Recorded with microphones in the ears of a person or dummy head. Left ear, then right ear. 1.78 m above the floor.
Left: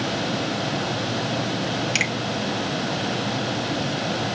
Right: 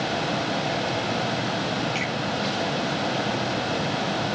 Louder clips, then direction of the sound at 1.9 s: Left 5 dB; 60° left (ahead or behind).